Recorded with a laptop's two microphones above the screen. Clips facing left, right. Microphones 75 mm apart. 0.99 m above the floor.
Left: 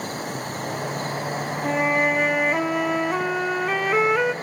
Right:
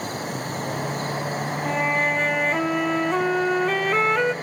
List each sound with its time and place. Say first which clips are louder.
1.6 s a flute: left 2 dB; 5° left (ahead or behind), 0.5 m